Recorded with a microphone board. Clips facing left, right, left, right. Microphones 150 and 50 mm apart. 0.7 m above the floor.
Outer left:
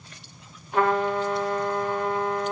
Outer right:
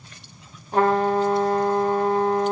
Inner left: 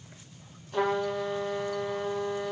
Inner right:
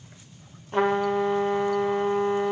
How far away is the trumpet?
About 0.8 m.